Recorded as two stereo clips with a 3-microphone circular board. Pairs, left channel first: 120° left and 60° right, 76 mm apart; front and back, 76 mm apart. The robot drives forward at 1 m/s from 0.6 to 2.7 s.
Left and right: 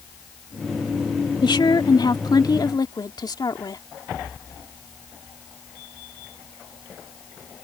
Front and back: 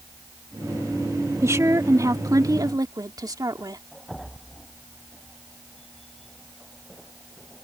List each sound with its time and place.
1.4 s a woman speaking: 130° left; by 3.8 s 145° left